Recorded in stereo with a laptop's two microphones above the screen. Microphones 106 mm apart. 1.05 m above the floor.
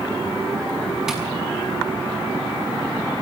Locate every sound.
1.1 s tapping: 5° right (ahead or behind), 5 m